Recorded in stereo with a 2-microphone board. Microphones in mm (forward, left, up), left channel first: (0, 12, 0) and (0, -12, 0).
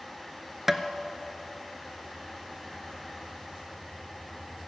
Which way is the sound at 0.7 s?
10° right (ahead or behind).